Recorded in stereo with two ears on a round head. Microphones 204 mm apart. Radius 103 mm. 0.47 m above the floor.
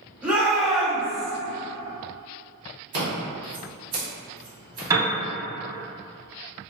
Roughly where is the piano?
Centre.